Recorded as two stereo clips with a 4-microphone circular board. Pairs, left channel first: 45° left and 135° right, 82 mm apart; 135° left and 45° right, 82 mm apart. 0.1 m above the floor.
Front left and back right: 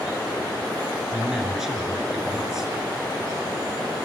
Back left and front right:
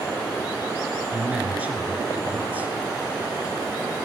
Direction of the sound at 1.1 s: 65° right.